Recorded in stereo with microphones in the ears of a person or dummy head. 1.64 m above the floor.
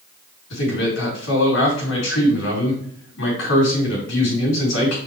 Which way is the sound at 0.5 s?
85° left.